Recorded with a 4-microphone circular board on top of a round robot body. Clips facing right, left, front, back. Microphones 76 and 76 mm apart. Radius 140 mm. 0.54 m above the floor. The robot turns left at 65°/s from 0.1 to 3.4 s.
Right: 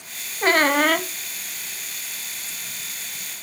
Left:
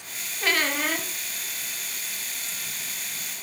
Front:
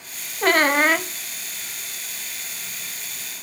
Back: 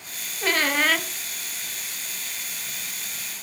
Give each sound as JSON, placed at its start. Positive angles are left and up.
{"t": 0.4, "sound": "a squeak", "azimuth_deg": -35, "distance_m": 0.5}